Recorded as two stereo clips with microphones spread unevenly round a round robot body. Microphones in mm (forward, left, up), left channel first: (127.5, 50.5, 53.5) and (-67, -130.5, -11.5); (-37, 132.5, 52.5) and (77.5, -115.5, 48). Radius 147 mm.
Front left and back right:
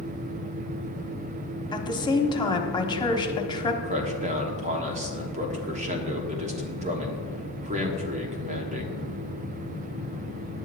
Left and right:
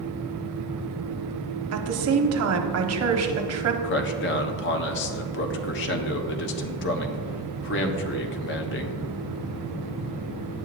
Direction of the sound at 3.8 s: 165° left.